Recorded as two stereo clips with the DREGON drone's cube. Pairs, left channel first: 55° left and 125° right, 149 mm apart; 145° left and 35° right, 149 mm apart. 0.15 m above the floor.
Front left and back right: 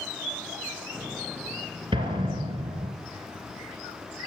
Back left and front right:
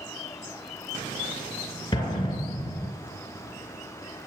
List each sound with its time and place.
1.9 s an explosion: 160° right, 2.5 m